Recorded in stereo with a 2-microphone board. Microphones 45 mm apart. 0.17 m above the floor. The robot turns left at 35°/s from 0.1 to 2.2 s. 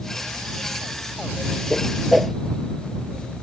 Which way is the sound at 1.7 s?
15° left (ahead or behind).